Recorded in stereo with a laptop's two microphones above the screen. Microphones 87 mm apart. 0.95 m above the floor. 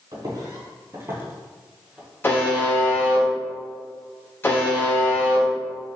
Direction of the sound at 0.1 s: 45° right (ahead or behind).